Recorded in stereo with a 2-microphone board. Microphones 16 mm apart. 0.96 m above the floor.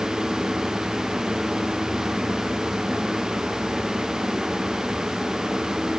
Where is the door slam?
No door slam in this recording.